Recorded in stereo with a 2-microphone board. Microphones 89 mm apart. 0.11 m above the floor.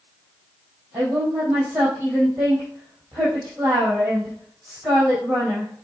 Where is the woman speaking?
15° right (ahead or behind), 3 m.